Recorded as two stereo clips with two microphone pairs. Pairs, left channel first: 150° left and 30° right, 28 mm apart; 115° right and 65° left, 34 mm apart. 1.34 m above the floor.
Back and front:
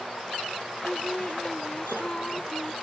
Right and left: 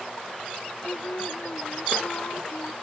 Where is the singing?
140° right.